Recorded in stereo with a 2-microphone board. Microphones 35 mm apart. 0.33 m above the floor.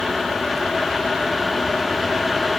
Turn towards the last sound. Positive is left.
No sound to turn to.